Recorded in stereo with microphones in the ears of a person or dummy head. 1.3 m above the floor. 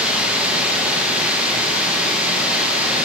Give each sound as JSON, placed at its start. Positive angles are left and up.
{"t": 0.0, "sound": "running water", "side_deg": -10, "distance_m": 0.8}